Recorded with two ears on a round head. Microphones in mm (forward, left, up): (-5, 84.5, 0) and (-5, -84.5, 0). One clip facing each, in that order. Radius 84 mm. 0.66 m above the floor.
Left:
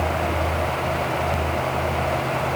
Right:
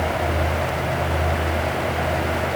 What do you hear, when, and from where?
Only background noise.